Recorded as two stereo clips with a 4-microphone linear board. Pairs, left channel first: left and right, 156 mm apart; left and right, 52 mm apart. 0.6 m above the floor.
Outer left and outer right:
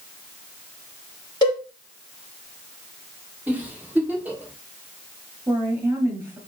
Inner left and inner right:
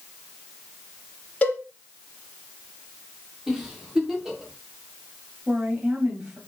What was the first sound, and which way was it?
A cowbell, 25° left (ahead or behind).